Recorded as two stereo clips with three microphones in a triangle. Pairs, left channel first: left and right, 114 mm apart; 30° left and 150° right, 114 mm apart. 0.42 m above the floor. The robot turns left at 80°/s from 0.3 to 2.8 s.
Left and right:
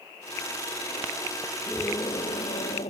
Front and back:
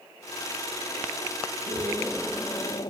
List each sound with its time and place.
1.7 s a scream: 170° left; by 2.9 s 75° left